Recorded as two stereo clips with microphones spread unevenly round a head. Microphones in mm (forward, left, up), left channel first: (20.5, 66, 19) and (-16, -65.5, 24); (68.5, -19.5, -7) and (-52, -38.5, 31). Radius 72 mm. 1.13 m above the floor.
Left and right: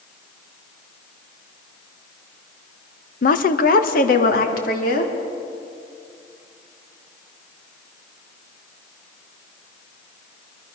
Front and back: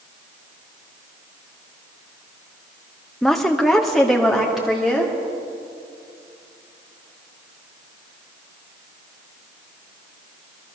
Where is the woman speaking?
90° left, 1.2 m; by 5.1 s 100° left, 3.5 m.